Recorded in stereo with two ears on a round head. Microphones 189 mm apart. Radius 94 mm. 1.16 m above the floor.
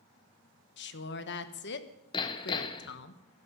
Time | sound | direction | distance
0.8 | a woman speaking | 55° left (ahead or behind) | 1.1 m
2.1 | hammering | 20° left (ahead or behind) | 0.9 m